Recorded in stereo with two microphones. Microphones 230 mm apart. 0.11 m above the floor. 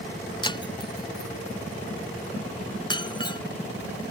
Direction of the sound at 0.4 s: 20° left (ahead or behind).